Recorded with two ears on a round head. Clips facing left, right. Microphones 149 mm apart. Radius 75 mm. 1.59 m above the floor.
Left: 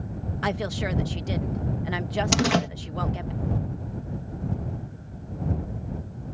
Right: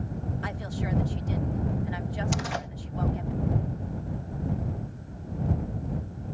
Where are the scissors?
I don't hear scissors.